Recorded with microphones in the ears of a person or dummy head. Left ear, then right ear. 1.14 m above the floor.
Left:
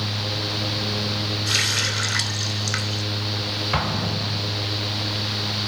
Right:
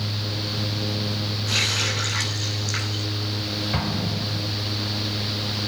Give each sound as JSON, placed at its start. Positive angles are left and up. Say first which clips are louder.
{"t": 1.5, "sound": "a running tap", "louder": "left 1 dB", "side_deg": 80, "distance_m": 3.0}
{"t": 3.7, "sound": "an explosion", "louder": "left 3 dB", "side_deg": 50, "distance_m": 0.6}